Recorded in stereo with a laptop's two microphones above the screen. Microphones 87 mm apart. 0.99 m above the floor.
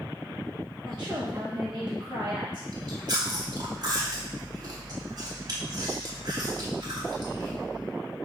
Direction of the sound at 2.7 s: 50° right (ahead or behind).